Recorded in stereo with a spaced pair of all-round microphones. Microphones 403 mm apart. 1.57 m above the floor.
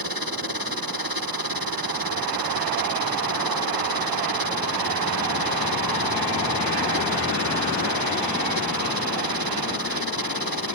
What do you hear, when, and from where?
0.0 s a machine running: 60° right (ahead or behind)